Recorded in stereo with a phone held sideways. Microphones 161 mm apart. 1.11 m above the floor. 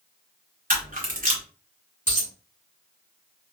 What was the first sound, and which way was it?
A camera shutter, 65° right (ahead or behind).